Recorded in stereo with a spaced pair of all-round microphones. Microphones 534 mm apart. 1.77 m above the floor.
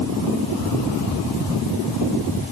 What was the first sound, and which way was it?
Only background noise.